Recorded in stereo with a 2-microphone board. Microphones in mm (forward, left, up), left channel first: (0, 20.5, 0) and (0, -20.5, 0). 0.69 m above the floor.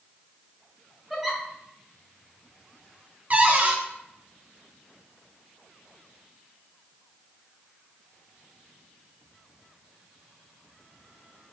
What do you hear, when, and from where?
1.1 s a giggle: 5° right (ahead or behind), 0.8 m
3.3 s a cupboard door: 35° right (ahead or behind), 0.6 m